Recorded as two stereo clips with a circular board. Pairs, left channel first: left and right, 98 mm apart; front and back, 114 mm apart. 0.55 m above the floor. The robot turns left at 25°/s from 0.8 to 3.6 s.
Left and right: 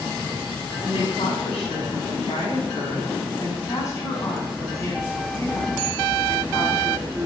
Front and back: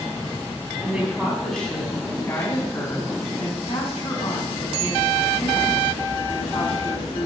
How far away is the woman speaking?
About 5.5 m.